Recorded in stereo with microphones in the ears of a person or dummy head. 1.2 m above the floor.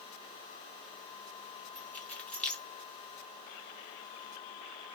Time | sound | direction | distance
1.8 | keys jangling | 5° left (ahead or behind) | 2 m